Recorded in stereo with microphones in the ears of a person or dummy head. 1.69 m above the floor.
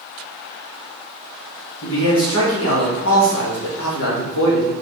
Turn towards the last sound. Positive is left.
turn(degrees=80)